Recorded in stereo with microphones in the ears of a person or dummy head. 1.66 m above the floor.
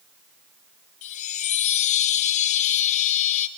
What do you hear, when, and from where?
1.0 s a chime: 40° left (ahead or behind), 0.8 m